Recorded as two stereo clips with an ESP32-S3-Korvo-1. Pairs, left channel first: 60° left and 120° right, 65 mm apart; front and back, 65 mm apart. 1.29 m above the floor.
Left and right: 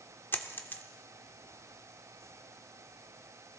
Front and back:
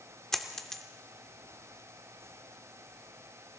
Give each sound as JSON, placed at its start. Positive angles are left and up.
{"t": 0.3, "sound": "a dropped coin", "azimuth_deg": 75, "distance_m": 1.0}